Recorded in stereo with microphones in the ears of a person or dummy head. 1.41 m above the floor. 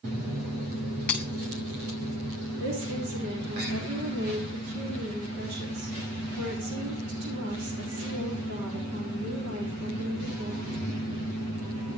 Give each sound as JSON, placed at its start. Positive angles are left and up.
{"t": 1.1, "sound": "breaking glass", "side_deg": 5, "distance_m": 5.5}
{"t": 2.6, "sound": "a woman speaking", "side_deg": -65, "distance_m": 4.0}